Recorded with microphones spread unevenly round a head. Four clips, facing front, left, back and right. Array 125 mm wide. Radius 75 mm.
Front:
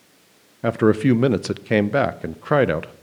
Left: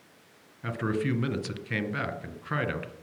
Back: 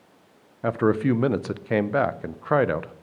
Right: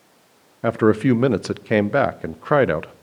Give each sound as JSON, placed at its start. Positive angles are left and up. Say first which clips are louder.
{"t": 0.6, "sound": "a man speaking", "louder": "right 13 dB, front 4 dB", "azimuth_deg": -50, "distance_m": 0.5}